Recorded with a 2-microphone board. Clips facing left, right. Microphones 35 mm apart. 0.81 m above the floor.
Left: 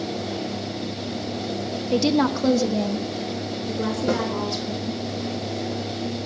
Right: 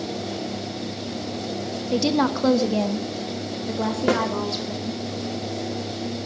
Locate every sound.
1.9 s a woman speaking: 10° left (ahead or behind), 0.7 m; by 5.1 s 60° right (ahead or behind), 2 m
4.1 s a snare drum: 85° right, 1.1 m